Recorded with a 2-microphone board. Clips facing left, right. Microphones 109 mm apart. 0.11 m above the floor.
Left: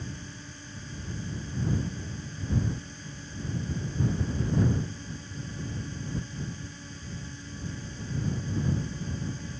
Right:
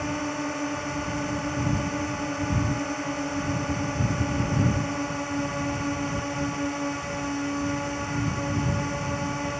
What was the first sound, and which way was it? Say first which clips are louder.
A drone: right 14 dB; 75° right (ahead or behind).